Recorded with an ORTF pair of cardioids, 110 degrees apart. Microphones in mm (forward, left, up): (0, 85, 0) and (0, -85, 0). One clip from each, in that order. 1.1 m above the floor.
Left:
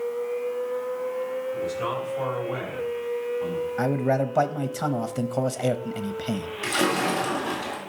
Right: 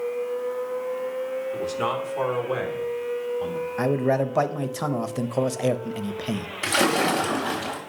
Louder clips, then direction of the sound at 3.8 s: Right 2 dB; 5° right.